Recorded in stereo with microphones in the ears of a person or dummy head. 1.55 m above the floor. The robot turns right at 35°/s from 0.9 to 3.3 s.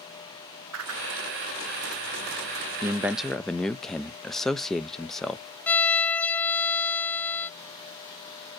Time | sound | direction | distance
0.7 | a whoosh | 85° right | 1.1 m
2.8 | a man speaking | 10° right (ahead or behind) | 0.6 m
5.7 | a violin | 15° left (ahead or behind) | 0.8 m